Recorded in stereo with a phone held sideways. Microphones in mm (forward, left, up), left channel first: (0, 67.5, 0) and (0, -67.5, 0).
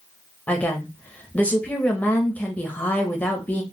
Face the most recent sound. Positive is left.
turn(degrees=10)  # may be behind; listen again after turning